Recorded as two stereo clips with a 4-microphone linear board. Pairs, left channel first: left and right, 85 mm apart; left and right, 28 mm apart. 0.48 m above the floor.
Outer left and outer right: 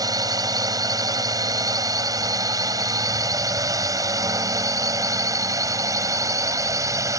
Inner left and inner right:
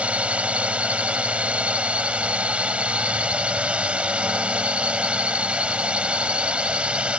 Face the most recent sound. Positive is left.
turn(degrees=-40)  # may be behind; listen again after turning